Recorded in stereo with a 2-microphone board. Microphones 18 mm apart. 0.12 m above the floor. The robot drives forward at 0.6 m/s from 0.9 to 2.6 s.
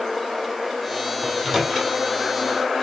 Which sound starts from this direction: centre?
A microwave, at 1.2 s.